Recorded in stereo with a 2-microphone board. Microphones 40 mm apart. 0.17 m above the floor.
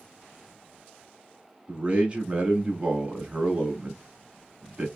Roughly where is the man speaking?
Right.